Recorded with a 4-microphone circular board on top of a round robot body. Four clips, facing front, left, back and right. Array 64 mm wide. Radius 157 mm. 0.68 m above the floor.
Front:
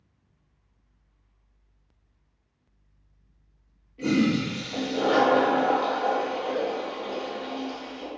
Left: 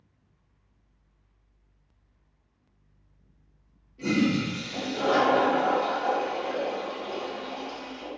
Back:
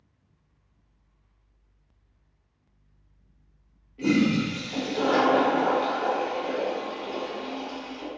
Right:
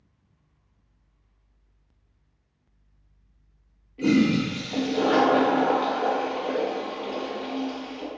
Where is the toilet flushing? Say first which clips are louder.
Right 4 dB, back 1 dB; 90° right, 0.9 m.